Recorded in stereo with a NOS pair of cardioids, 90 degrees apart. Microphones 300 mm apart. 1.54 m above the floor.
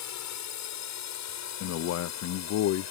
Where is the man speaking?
60° left.